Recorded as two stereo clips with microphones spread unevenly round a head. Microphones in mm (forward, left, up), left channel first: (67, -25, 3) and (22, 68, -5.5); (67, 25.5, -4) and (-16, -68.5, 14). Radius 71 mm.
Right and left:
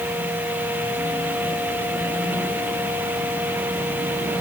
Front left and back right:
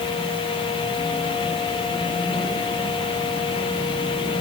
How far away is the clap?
No clap in this recording.